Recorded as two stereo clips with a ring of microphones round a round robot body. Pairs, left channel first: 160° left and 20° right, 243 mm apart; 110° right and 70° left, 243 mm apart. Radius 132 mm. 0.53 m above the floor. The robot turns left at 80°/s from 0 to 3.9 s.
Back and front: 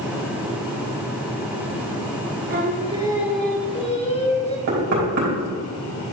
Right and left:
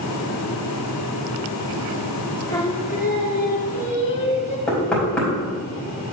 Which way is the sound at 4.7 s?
25° right.